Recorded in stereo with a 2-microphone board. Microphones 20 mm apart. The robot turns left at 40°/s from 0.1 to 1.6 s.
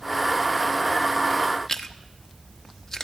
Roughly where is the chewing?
Left.